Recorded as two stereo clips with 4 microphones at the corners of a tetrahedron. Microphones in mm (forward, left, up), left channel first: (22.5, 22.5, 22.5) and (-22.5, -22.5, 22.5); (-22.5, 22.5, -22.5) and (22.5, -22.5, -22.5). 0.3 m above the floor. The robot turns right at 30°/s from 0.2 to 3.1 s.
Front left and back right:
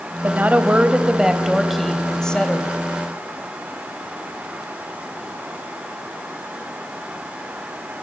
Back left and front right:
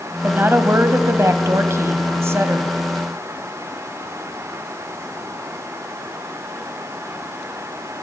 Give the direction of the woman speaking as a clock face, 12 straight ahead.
3 o'clock.